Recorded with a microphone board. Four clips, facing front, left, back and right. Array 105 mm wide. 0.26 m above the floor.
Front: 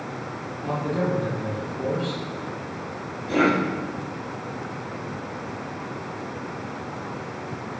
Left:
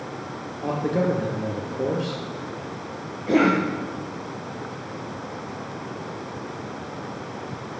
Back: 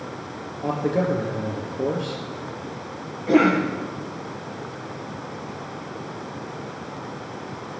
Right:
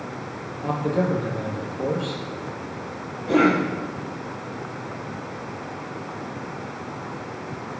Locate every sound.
0.6 s a man speaking: 135° left, 5 m
3.3 s a cough: 145° left, 6 m